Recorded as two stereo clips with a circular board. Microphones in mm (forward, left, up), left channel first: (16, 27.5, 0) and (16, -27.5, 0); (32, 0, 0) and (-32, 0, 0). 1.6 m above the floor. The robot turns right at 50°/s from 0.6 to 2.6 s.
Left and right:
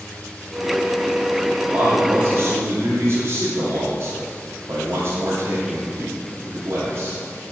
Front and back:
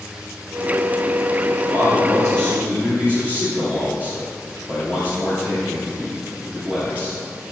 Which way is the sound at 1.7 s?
160° right.